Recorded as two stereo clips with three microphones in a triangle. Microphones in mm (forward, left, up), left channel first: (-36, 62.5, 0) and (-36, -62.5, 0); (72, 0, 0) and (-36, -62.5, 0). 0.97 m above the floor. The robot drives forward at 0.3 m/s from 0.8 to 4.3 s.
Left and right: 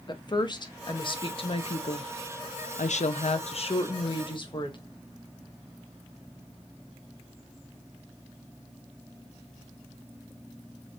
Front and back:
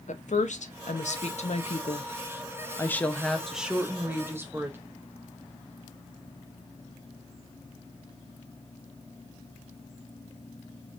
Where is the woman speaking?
40° left, 0.7 m; by 4.8 s 140° left, 0.7 m.